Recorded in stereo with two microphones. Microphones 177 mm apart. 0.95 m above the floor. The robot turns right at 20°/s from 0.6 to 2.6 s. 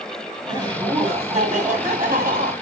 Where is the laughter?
160° right, 1.4 m; by 2.5 s 120° right, 1.4 m.